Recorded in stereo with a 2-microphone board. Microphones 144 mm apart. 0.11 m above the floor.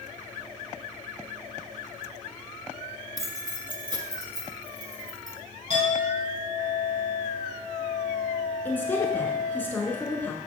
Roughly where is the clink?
Right.